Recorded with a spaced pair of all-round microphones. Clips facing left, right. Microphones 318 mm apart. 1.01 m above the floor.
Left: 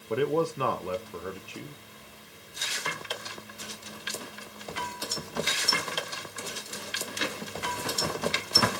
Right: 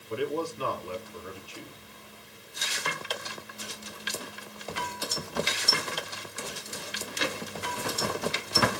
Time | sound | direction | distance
0.1 | a man speaking | 65° left (ahead or behind) | 0.8 m